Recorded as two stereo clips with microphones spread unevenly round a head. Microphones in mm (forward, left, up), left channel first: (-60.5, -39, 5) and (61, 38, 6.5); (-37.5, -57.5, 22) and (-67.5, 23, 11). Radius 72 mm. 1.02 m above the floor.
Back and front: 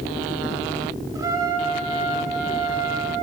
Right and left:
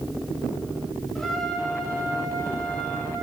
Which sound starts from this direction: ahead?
A trumpet, at 1.1 s.